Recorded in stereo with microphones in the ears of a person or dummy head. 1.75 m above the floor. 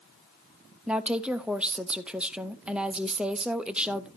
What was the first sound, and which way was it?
A woman speaking, 10° right (ahead or behind).